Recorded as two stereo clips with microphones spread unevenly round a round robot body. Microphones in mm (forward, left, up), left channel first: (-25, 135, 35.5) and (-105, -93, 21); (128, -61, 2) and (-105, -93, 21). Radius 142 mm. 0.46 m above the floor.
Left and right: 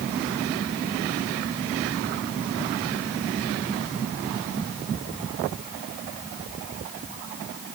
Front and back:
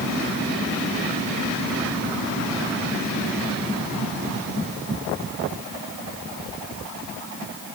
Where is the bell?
No bell in this recording.